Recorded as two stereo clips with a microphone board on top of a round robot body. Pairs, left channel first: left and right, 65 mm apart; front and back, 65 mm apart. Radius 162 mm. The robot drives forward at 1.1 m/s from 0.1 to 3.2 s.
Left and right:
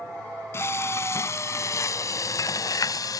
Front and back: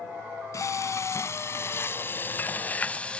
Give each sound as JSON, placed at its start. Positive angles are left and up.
{"t": 0.5, "sound": "frying", "azimuth_deg": 40}